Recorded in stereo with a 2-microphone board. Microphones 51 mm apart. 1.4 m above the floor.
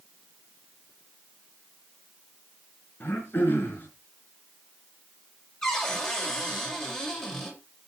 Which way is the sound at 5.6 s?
15° left (ahead or behind).